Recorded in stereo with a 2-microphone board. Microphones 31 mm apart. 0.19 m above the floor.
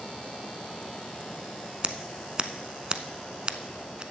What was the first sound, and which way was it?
Scissors, 30° right (ahead or behind).